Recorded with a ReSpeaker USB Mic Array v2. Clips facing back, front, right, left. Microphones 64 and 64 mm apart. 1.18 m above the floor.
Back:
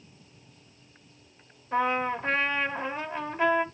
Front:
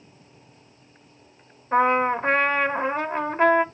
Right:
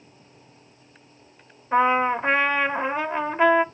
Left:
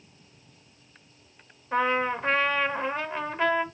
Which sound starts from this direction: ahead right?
A trumpet, at 1.7 s.